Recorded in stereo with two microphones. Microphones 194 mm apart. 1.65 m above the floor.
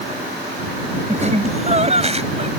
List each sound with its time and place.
1.1 s laughter: 35° right (ahead or behind); by 2.5 s 30° right (ahead or behind)